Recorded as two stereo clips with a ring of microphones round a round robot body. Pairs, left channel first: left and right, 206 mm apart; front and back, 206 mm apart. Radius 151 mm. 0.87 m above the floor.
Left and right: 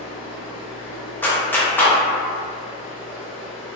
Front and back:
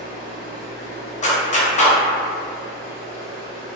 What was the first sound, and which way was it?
Running water, 160° left.